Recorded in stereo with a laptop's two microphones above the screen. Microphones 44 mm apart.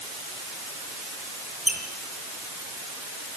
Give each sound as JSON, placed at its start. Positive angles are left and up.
{"t": 1.7, "sound": "a squeak", "side_deg": -35, "distance_m": 7.5}